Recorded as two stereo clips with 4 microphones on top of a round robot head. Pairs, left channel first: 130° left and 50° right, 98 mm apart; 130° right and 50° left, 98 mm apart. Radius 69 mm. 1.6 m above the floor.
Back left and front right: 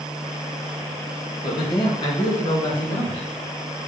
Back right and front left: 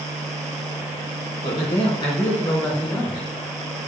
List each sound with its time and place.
1.4 s a man speaking: straight behind, 2.5 m; by 3.3 s 175° left, 3.5 m